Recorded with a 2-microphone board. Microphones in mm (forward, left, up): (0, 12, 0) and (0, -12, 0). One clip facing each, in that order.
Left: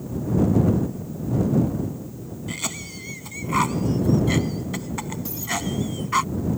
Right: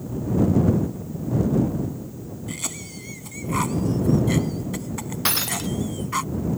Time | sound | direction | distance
2.5 | a cough | 15° left (ahead or behind) | ?
5.2 | breaking glass | 90° right | ?